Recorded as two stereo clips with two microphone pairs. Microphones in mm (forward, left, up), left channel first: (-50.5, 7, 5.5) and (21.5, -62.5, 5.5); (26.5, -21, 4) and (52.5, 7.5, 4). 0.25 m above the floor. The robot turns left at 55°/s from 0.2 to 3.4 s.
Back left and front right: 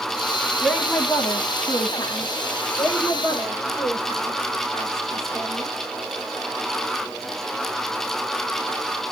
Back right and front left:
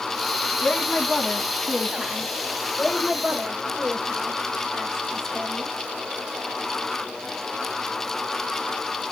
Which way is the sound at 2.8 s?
165° left.